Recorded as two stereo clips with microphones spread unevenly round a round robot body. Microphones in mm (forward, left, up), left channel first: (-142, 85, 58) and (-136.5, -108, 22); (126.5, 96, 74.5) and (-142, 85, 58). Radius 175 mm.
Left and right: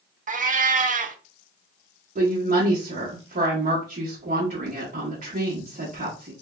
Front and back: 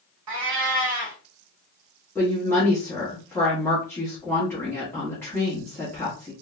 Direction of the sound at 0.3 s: 140° right.